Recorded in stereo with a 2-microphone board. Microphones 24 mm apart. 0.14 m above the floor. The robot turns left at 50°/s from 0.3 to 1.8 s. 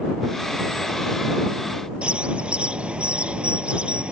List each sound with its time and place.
2.0 s a bird: 50° right (ahead or behind)